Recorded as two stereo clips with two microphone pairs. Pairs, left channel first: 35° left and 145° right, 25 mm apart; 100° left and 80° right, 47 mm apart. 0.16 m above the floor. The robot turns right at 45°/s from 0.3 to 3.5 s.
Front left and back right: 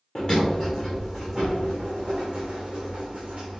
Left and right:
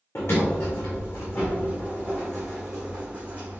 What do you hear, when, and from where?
0.1 s a sliding door: 85° left, 1.8 m; by 3.6 s 130° right, 1.8 m